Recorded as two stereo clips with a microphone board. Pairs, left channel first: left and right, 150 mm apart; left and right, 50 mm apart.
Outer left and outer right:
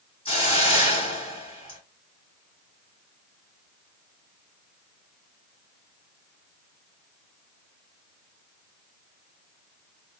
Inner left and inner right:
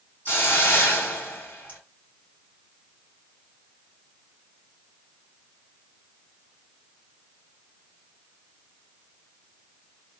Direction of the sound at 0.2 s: 40° left (ahead or behind).